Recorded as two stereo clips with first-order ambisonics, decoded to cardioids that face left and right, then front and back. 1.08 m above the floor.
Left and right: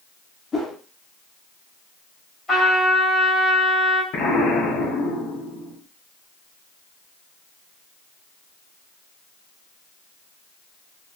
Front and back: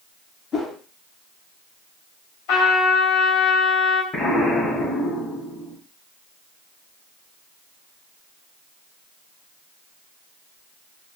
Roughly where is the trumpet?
Ahead.